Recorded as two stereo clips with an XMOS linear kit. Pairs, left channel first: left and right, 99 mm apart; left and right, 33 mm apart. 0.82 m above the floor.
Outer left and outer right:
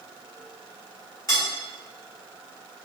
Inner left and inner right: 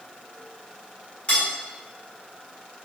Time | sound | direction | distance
1.3 | cutlery clinking | 35° left (ahead or behind) | 1.5 m